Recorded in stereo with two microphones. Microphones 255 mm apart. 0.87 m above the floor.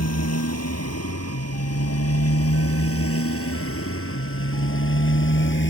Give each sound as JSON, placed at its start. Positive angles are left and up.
{"t": 0.0, "sound": "a motorcycle", "side_deg": 75}